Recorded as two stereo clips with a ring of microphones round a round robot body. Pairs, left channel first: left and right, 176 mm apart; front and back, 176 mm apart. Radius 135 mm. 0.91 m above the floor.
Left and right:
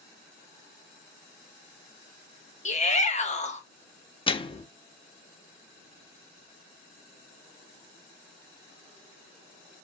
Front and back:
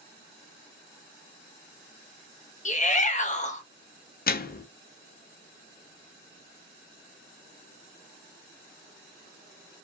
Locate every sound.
2.6 s a shout: 45° left, 1.3 m
4.3 s a microwave: 30° left, 0.7 m